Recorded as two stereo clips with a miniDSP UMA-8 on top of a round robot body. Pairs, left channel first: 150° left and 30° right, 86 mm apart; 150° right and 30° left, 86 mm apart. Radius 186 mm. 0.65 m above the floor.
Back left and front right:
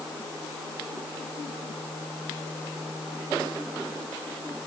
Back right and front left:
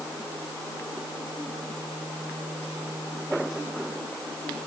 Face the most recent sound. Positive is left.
No sound to turn to.